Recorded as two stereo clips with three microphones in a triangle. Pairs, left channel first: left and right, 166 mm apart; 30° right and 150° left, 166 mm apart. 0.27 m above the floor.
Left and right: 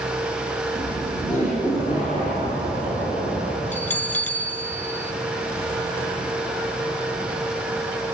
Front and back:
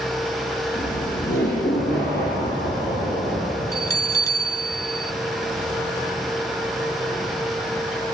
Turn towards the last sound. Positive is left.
turn(degrees=25)